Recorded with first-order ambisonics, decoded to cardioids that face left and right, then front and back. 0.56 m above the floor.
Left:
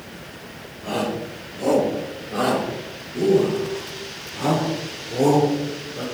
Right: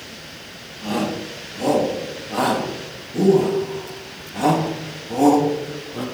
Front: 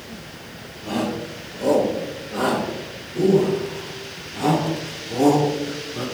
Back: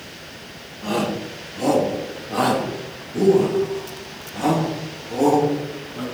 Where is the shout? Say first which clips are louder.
Right 1 dB, back 2 dB; 145° right, 4.5 m; by 6.0 s 85° right, 4 m.